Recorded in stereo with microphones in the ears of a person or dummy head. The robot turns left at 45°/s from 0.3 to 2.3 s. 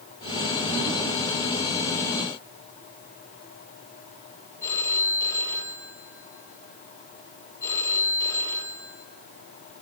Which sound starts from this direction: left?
A phone ringing, at 4.6 s.